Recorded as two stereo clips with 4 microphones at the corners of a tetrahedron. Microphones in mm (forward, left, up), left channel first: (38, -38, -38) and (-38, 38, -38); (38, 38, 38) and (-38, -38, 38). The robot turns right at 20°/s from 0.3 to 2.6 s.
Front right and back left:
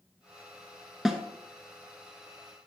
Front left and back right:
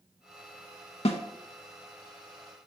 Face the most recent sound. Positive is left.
turn(degrees=75)